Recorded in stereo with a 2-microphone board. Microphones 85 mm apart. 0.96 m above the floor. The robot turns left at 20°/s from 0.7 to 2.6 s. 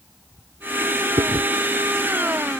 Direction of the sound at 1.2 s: 70° right (ahead or behind).